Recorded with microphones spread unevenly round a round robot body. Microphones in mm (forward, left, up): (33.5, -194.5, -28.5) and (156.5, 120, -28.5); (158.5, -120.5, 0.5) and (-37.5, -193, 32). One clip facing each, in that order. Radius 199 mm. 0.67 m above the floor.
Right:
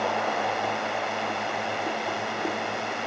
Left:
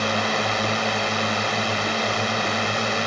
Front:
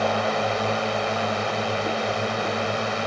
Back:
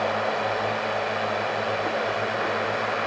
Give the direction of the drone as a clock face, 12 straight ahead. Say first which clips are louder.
Left 3 dB, front 2 dB; 9 o'clock.